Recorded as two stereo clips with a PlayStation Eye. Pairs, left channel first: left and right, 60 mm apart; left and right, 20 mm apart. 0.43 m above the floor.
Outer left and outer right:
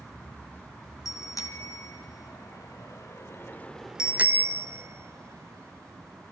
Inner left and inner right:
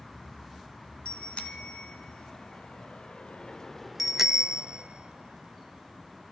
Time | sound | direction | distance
1.1 | a bicycle bell | 70° left (ahead or behind) | 3.5 m